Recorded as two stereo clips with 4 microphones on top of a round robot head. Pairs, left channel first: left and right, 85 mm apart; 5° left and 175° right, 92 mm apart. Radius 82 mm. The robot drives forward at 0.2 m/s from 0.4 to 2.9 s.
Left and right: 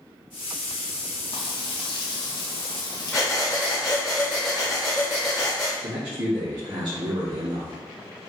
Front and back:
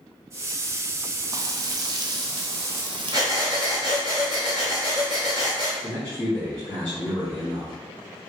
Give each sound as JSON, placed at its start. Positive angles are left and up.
{"t": 1.3, "sound": "frying", "azimuth_deg": 130, "distance_m": 0.5}
{"t": 3.1, "sound": "breathing", "azimuth_deg": 180, "distance_m": 0.8}
{"t": 5.8, "sound": "a man speaking", "azimuth_deg": -75, "distance_m": 1.5}